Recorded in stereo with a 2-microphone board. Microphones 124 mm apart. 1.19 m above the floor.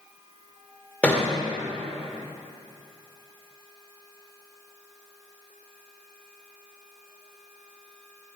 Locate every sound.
1.0 s a thud: 10° left (ahead or behind), 1.8 m